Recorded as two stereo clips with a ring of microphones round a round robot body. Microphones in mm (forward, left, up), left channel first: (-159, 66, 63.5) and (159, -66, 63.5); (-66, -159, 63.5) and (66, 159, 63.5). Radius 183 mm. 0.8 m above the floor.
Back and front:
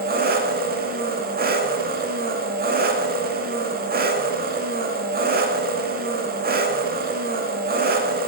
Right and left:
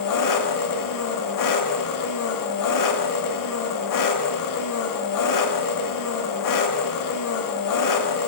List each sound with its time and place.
0.0 s an engine running: 85° right, 1.3 m